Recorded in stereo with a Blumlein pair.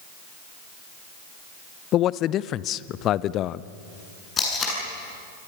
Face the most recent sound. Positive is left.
turn(degrees=20)